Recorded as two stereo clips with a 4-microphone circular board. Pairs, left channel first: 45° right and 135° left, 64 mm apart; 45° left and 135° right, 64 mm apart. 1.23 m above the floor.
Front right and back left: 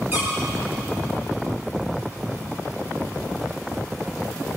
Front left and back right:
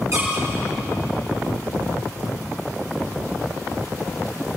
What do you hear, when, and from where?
0.1 s a squeak: 170° right, 8.5 m